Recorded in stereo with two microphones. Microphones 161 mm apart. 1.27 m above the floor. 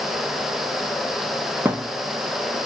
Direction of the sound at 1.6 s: 10° right (ahead or behind).